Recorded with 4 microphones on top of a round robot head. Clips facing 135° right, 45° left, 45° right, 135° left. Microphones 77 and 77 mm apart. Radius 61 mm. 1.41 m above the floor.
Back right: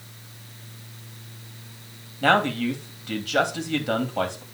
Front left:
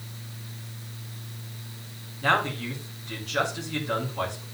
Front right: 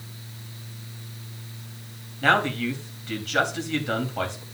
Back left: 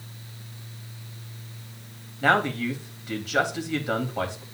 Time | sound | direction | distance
2.2 | a man speaking | 150° right | 3 m